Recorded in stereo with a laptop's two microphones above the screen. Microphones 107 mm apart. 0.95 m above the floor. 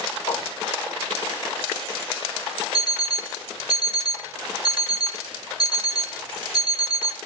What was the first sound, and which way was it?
A whoosh, 20° left (ahead or behind).